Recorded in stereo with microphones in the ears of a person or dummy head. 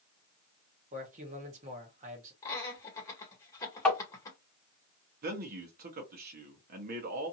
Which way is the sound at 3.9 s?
10° left (ahead or behind).